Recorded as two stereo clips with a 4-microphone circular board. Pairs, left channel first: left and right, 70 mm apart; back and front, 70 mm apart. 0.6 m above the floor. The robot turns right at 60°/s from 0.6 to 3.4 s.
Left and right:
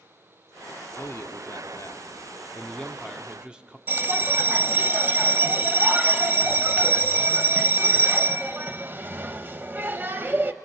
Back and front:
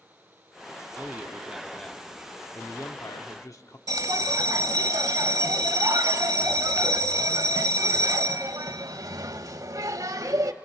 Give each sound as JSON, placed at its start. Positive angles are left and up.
{"t": 1.0, "sound": "a man speaking", "azimuth_deg": 50, "distance_m": 1.1}
{"t": 3.9, "sound": "a bell", "azimuth_deg": -30, "distance_m": 0.8}